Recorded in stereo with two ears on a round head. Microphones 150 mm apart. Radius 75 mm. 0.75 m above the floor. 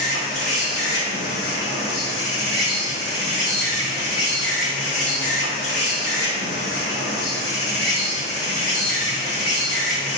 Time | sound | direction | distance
0.0 | an insect | 30° left (ahead or behind) | 1.8 m